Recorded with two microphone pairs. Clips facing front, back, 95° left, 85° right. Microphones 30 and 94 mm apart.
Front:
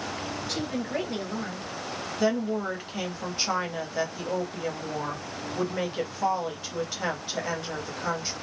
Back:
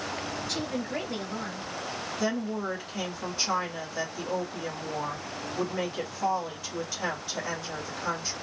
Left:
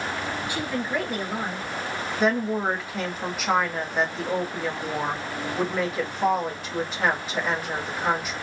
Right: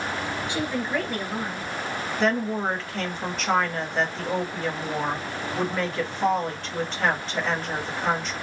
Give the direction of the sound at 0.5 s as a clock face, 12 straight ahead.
2 o'clock.